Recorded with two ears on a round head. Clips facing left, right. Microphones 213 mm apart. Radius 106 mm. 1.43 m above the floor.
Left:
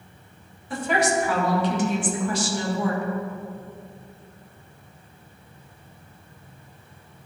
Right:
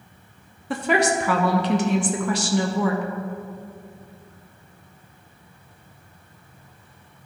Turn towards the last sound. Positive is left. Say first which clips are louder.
# right 2 dB
turn(degrees=-50)  # may be behind; listen again after turning